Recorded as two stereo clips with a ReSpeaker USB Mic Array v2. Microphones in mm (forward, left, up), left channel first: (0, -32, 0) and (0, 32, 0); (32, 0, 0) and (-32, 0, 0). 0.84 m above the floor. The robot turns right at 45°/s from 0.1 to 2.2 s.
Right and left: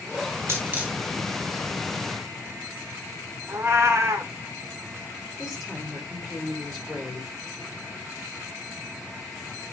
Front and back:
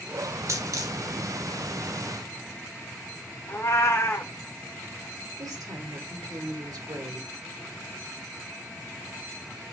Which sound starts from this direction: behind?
A woman speaking, at 5.4 s.